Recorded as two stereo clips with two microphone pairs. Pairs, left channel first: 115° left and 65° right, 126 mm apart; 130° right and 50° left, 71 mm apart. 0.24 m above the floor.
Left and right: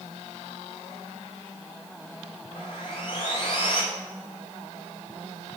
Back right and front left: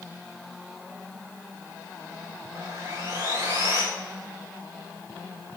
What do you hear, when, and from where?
2.5 s sawing: 85° left, 4.5 m